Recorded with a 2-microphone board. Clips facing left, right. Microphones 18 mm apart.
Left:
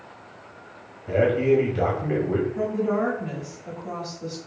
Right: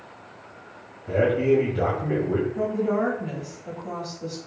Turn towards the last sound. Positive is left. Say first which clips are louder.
# even
turn(degrees=15)  # may be behind; listen again after turning